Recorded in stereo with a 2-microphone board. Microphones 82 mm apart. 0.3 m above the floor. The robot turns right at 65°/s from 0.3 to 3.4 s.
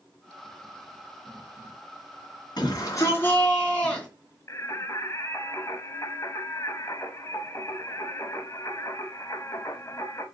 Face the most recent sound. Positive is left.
turn(degrees=40)  # may be behind; listen again after turning